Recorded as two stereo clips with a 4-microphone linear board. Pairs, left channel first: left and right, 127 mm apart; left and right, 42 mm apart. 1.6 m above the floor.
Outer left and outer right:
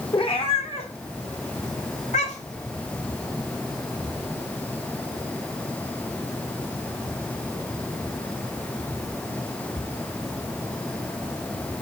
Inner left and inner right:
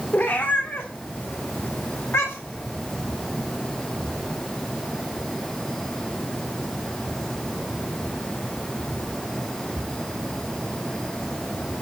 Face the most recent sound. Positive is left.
turn(degrees=75)  # may be behind; listen again after turning